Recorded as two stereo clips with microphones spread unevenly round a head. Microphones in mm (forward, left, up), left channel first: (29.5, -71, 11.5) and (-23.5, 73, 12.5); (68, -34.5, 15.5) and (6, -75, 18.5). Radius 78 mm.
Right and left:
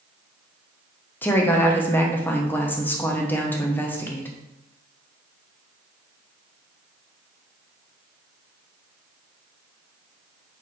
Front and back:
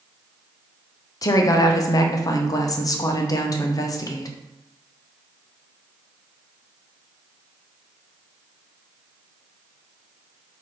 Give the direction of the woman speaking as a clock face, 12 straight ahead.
12 o'clock.